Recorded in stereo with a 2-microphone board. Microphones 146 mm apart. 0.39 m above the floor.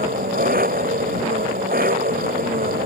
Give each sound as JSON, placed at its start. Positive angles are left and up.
{"t": 0.0, "sound": "an engine running", "side_deg": -70}